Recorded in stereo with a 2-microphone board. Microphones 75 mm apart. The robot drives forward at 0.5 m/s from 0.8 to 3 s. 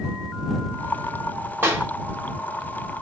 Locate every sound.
1.6 s a clap: 35° right (ahead or behind), 1.5 m